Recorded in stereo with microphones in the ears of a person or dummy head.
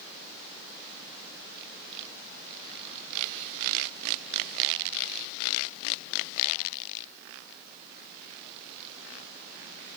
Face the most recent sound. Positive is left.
No sound to turn to.